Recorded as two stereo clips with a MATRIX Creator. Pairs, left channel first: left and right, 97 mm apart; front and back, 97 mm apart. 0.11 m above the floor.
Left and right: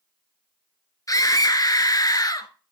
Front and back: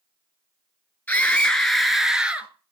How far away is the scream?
About 1.6 m.